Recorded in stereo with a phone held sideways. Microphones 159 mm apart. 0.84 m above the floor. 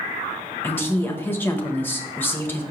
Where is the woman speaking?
15° left (ahead or behind), 1.0 m.